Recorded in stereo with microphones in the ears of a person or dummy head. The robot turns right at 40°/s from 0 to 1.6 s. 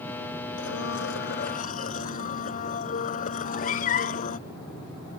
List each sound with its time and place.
0.6 s a blender: 95° left; by 4.4 s 135° left
3.4 s a cat meowing: 45° left (ahead or behind)